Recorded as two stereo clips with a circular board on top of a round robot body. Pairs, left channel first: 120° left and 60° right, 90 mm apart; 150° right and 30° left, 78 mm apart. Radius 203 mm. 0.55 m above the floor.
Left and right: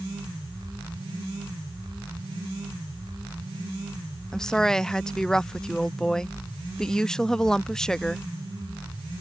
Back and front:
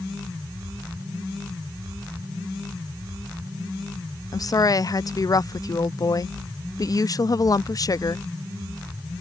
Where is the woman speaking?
160° right.